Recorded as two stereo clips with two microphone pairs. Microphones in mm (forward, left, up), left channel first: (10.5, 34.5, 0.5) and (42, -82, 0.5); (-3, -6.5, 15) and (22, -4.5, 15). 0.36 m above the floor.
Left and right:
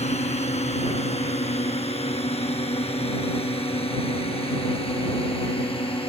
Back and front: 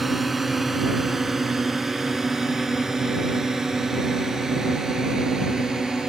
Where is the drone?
85° left; by 6.1 s 65° left.